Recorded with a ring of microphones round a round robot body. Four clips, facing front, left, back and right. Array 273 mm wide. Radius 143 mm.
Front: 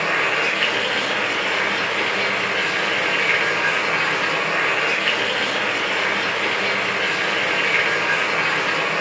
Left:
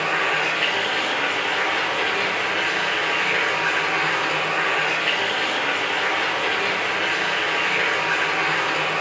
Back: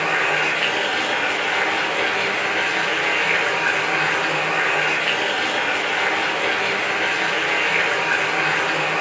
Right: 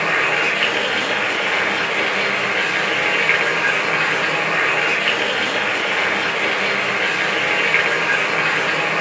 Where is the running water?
65° right, 5.5 m.